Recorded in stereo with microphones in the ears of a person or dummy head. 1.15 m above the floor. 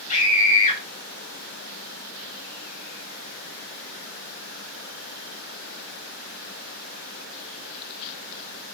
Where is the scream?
30° left (ahead or behind), 3.5 m.